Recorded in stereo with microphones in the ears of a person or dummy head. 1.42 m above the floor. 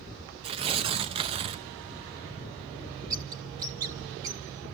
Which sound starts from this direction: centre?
A bird, at 3.1 s.